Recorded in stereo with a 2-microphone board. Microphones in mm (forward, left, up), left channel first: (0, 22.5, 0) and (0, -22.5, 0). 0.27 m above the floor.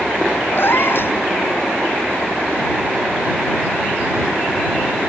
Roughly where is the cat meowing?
Left.